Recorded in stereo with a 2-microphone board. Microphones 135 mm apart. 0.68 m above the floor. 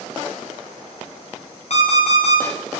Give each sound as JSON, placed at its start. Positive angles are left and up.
{"t": 1.7, "sound": "an alarm clock", "side_deg": 55, "distance_m": 0.7}